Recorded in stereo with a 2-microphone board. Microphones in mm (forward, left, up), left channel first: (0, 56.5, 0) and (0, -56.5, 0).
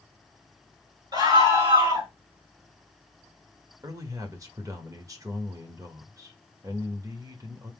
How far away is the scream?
About 2.5 m.